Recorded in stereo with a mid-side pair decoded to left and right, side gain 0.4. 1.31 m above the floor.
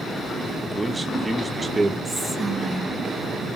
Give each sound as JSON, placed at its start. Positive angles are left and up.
{"t": 0.6, "sound": "a man speaking", "azimuth_deg": -15, "distance_m": 2.0}
{"t": 2.0, "sound": "whispering", "azimuth_deg": -20, "distance_m": 1.6}